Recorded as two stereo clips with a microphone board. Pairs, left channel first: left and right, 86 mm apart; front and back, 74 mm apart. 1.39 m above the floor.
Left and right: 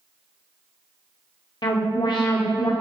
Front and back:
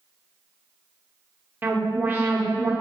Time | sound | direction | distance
1.6 | an alarm | 120° left | 0.6 m